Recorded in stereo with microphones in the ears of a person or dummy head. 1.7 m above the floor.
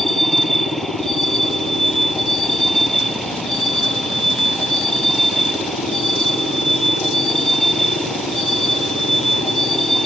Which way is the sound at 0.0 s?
Centre (ahead or behind).